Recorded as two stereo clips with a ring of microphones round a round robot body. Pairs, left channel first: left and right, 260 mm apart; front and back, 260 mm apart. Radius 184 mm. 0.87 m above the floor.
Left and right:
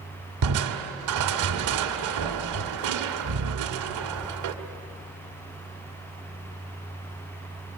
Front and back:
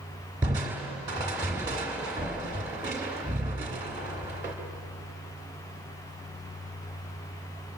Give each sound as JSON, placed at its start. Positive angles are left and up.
{"t": 0.4, "sound": "crushing", "azimuth_deg": -100, "distance_m": 1.3}